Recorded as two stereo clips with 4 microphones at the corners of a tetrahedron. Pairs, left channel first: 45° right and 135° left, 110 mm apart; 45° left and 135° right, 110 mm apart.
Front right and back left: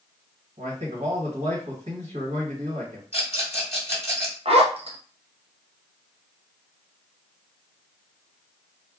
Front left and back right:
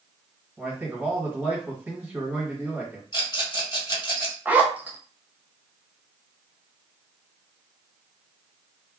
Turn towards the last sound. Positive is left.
turn(degrees=150)